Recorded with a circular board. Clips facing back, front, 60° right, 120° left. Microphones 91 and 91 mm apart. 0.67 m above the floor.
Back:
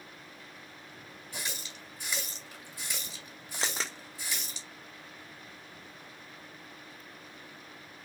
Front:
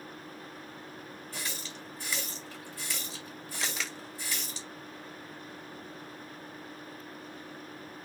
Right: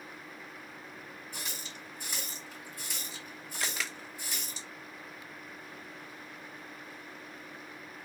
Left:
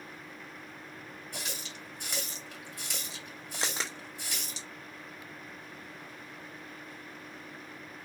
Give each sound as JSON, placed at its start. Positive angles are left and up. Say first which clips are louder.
{"t": 1.3, "sound": "a running tap", "louder": "even, left 3 dB", "azimuth_deg": 105, "distance_m": 1.7}
{"t": 3.6, "sound": "a camera shutter", "louder": "back 2 dB, left 1 dB", "azimuth_deg": 155, "distance_m": 0.7}